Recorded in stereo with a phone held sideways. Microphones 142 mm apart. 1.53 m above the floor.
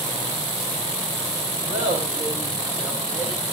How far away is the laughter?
About 7 m.